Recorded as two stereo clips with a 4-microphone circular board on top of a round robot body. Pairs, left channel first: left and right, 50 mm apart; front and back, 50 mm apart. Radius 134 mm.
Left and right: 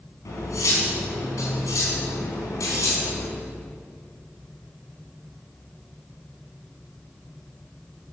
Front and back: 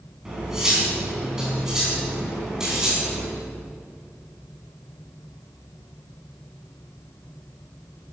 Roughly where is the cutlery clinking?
Left.